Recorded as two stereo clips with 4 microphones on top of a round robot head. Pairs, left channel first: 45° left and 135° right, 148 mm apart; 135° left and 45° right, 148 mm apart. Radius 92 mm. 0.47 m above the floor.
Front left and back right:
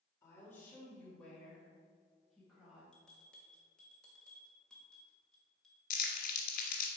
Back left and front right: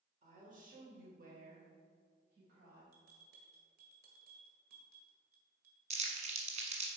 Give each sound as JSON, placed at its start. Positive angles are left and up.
{"t": 0.2, "sound": "a woman speaking", "azimuth_deg": -25, "distance_m": 1.9}
{"t": 2.9, "sound": "a bell", "azimuth_deg": -40, "distance_m": 1.7}
{"t": 5.9, "sound": "crumpling", "azimuth_deg": 5, "distance_m": 1.4}